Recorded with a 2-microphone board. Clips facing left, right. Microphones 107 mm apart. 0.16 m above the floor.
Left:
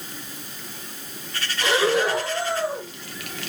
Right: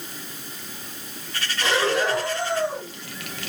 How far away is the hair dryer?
I don't hear a hair dryer.